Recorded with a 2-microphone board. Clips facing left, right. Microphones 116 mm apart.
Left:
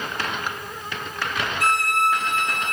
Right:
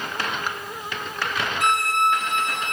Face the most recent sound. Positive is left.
turn(degrees=-20)  # may be behind; listen again after turning